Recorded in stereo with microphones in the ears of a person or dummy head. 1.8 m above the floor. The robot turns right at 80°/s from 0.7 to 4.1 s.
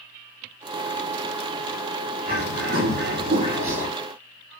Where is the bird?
140° right, 2.5 m; by 3.9 s 5° right, 2.5 m.